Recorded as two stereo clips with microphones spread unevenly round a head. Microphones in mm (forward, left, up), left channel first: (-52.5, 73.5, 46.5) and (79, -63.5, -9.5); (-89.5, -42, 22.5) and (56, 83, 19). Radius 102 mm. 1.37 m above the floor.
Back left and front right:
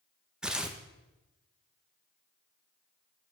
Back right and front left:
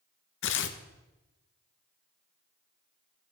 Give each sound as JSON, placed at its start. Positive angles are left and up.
{"t": 0.4, "sound": "tearing paper", "azimuth_deg": -140, "distance_m": 0.7}